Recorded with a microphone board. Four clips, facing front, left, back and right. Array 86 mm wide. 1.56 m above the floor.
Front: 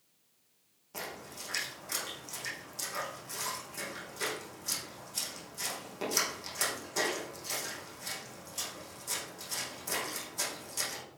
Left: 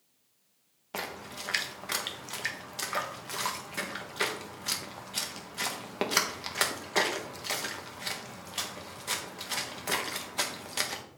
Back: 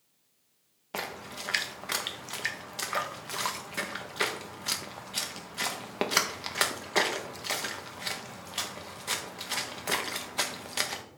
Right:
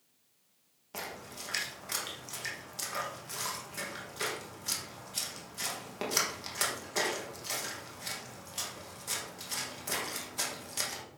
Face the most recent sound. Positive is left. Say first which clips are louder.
# left 4 dB, back 6 dB
turn(degrees=150)